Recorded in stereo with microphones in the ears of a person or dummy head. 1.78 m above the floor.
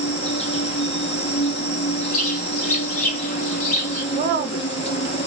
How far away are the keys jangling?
No keys jangling in this recording.